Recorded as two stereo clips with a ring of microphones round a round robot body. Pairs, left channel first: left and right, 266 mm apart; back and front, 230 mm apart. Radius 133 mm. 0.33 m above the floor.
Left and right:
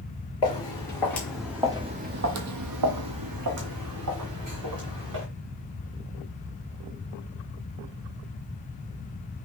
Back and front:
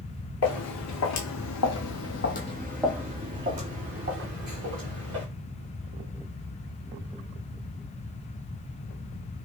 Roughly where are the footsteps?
Behind.